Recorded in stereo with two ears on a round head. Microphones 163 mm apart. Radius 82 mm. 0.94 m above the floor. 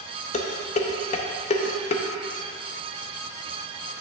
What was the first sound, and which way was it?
Dishes clattering, 35° left (ahead or behind).